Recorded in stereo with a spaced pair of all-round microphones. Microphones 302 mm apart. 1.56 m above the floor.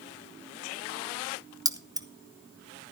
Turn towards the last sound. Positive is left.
turn(degrees=-10)  # may be behind; listen again after turning